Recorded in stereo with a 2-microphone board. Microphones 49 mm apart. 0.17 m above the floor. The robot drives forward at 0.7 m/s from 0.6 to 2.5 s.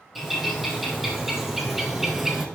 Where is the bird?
5° right (ahead or behind), 2.5 m.